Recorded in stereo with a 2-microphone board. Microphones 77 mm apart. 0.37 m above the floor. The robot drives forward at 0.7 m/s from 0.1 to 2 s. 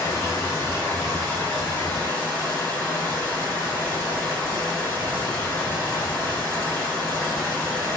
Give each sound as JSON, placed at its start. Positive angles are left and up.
{"t": 0.0, "sound": "running water", "side_deg": 45, "distance_m": 2.0}